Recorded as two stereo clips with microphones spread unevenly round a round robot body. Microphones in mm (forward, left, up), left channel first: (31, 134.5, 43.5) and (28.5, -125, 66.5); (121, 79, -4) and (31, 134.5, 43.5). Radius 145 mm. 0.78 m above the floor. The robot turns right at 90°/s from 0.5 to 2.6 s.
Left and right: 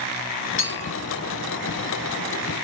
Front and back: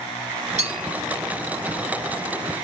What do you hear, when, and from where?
0.6 s a clink: 150° left, 1.6 m; by 0.9 s straight behind, 1.6 m